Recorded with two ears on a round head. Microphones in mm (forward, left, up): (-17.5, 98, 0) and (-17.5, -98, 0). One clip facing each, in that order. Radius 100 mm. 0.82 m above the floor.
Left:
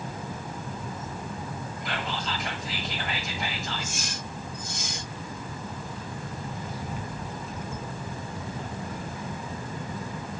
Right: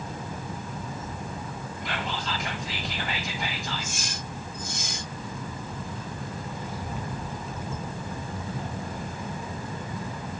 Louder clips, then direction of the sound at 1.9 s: Even; centre (ahead or behind).